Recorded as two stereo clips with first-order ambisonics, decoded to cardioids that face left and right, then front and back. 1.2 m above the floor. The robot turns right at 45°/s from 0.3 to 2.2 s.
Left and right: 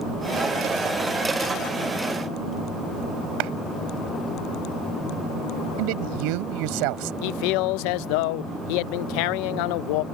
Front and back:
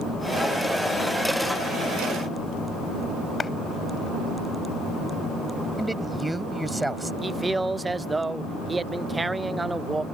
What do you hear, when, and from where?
3.4 s a clap: 75° right
5.8 s a man speaking: 95° right
7.2 s a man speaking: 100° left